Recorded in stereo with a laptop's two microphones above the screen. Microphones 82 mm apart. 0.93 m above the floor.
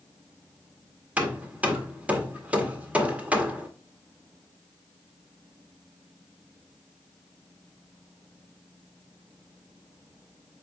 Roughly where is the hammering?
Centre.